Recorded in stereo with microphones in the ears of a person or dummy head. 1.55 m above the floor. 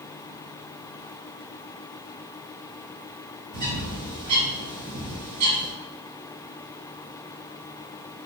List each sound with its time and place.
3.5 s a bird: 55° right (ahead or behind), 4 m